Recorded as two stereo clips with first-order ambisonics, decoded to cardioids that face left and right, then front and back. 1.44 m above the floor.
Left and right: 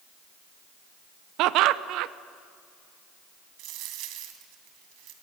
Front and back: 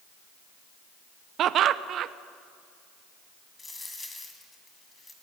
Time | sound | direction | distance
1.4 | laughter | 125° right | 0.9 m
3.6 | a dropped coin | 80° right | 2.5 m